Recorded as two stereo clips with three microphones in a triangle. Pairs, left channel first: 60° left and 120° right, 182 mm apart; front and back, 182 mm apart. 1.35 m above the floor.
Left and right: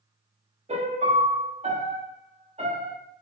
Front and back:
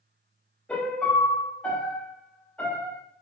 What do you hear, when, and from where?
0.7 s a piano: 80° right, 1.1 m